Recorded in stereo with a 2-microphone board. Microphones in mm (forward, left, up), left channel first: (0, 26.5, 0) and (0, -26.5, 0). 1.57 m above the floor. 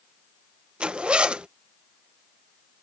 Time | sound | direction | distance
0.8 | a zipper | 20° right (ahead or behind) | ?